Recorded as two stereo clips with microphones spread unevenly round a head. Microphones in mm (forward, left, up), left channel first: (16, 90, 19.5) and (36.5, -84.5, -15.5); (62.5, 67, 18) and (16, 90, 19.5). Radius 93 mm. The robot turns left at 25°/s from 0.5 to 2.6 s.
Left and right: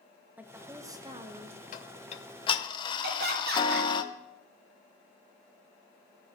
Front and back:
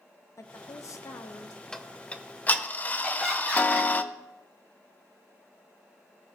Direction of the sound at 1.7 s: 50° left.